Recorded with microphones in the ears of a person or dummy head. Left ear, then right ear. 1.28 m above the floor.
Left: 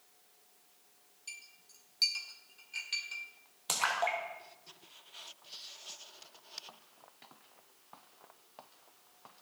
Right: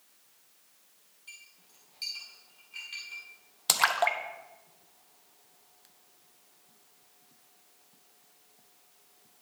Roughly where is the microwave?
I don't hear a microwave.